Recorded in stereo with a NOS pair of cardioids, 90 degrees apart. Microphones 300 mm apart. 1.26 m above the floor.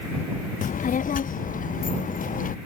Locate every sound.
0.6 s a child speaking: 25° left